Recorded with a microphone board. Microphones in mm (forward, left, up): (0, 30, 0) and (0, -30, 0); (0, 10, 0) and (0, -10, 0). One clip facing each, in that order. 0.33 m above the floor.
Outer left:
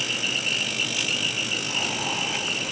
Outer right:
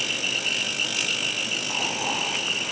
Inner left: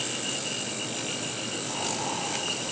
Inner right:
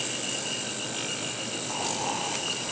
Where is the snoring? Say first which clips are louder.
Outer right 2 dB, inner right 2 dB; 15° right (ahead or behind), 7 m.